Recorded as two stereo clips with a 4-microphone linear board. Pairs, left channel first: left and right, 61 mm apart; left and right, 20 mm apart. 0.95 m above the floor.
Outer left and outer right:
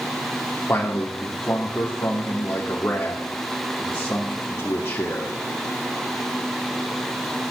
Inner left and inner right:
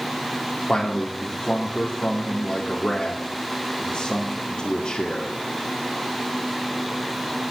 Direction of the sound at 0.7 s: 45° left (ahead or behind).